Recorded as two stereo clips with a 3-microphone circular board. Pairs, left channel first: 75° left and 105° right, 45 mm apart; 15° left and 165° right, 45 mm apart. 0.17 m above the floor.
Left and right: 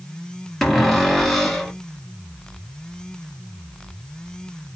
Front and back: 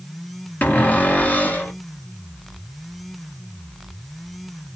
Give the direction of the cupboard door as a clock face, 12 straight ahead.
12 o'clock.